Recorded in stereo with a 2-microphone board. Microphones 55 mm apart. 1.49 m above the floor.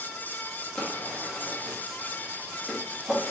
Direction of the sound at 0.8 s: 10° left (ahead or behind).